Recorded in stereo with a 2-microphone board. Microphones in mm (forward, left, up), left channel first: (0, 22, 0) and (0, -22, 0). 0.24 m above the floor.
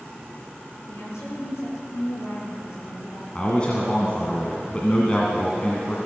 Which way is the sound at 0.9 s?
75° left (ahead or behind).